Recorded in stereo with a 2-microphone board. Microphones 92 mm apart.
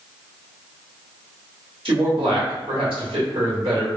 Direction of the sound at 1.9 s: 70° right (ahead or behind).